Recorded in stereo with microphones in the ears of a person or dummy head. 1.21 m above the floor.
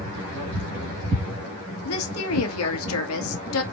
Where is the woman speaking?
85° left, 1.5 m.